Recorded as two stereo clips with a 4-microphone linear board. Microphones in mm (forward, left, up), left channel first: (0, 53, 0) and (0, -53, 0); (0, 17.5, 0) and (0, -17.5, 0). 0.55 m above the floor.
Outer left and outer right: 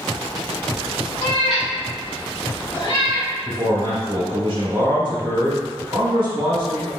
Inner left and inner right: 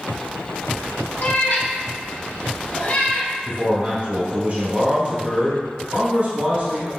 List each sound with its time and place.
1.2 s a cat meowing: 60° left (ahead or behind), 0.7 m; by 3.3 s 55° left (ahead or behind), 1.6 m
3.5 s a man speaking: 55° right (ahead or behind), 1.7 m